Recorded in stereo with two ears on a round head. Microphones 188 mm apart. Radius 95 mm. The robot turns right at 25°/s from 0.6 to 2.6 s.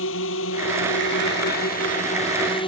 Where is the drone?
70° left (ahead or behind); by 2.7 s 25° left (ahead or behind).